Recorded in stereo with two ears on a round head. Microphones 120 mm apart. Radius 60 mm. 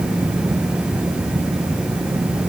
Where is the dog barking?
No dog barking in this recording.